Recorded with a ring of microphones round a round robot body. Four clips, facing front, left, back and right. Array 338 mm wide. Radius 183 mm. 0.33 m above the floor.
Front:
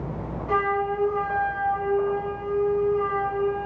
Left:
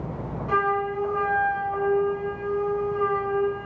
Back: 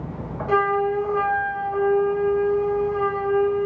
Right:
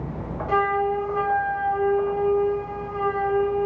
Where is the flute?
Straight behind, 3 m.